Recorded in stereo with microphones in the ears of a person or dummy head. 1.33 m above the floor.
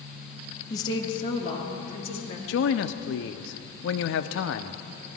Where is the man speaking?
65° left (ahead or behind), 0.6 m.